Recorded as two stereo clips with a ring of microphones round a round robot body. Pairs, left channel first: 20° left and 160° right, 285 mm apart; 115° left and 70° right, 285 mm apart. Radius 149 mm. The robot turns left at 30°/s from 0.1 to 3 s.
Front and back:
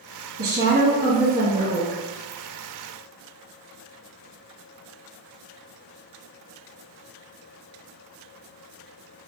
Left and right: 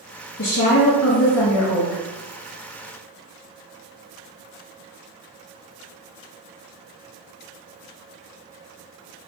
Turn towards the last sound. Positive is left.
turn(degrees=75)